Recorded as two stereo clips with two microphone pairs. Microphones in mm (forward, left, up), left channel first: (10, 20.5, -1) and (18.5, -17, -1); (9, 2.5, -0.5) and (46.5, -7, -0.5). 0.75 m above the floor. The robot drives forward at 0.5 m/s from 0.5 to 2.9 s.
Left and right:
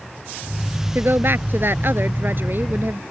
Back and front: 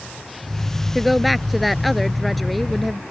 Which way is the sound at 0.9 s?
105° right.